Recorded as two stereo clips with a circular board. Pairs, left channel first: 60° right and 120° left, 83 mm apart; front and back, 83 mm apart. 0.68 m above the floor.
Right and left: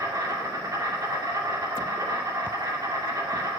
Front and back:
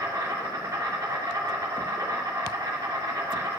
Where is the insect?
155° left, 2.5 m.